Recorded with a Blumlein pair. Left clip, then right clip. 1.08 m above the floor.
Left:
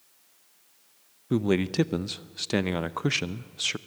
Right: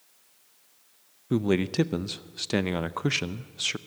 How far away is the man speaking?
About 0.6 m.